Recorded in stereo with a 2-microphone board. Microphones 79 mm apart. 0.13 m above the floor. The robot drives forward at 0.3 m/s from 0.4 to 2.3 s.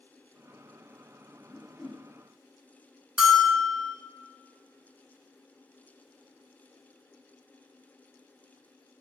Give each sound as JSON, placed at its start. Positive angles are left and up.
{"t": 1.5, "sound": "a whoosh", "side_deg": -10, "distance_m": 1.3}
{"t": 3.2, "sound": "a bell", "side_deg": -10, "distance_m": 0.5}